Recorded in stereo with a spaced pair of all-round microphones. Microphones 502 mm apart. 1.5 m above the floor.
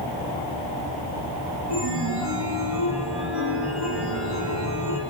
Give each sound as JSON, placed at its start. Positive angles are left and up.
{"t": 1.7, "sound": "a chime", "side_deg": -50, "distance_m": 1.7}